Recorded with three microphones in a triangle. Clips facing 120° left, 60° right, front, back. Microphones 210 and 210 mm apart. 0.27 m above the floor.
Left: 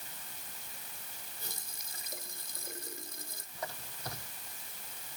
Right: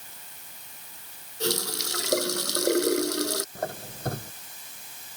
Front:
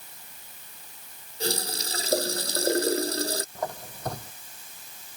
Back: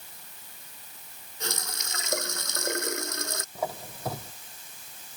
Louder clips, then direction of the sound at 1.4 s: Right 27 dB, front 7 dB; 55° right.